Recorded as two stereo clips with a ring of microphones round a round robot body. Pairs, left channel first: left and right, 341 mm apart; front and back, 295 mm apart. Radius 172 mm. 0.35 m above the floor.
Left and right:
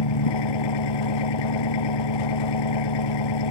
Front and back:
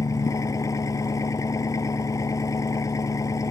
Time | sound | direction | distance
0.0 | an engine running | 80° left | ?